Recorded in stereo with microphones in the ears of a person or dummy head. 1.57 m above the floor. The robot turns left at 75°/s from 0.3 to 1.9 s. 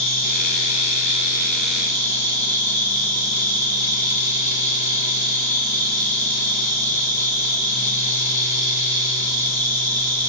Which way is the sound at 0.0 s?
110° left.